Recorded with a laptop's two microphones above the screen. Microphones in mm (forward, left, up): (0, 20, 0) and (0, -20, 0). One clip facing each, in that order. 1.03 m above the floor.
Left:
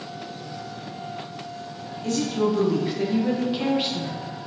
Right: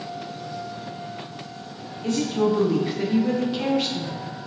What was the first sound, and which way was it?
A woman speaking, 15° right (ahead or behind).